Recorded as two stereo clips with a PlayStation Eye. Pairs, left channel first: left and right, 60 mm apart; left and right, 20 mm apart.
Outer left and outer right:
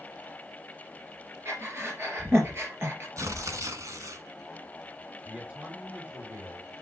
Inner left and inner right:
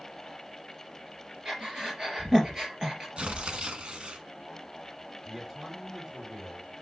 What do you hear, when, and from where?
1.4 s breathing: 45° right (ahead or behind), 3.5 m
3.2 s tearing paper: 65° right (ahead or behind), 1.2 m
5.2 s a man speaking: 25° right (ahead or behind), 3.5 m